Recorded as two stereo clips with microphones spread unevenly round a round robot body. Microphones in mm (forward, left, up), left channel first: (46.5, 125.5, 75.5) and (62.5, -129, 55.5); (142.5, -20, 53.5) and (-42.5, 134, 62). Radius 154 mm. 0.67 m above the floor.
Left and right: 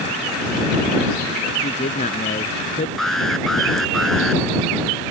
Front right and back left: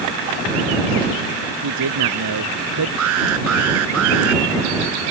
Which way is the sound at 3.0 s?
Straight behind.